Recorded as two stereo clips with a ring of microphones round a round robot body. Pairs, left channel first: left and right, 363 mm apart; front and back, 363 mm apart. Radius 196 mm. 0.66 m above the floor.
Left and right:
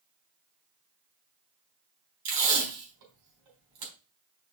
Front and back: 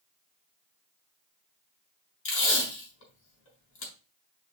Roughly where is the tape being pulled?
Ahead right.